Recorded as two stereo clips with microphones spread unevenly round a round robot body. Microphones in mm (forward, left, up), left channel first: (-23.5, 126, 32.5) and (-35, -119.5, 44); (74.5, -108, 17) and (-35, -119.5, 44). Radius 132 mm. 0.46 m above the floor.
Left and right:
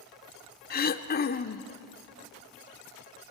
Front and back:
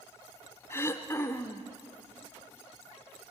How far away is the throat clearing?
About 0.8 m.